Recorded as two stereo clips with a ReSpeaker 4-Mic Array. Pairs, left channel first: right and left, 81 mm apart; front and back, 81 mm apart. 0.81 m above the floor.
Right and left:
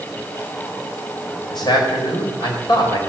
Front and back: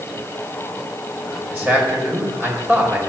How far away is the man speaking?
About 4.5 m.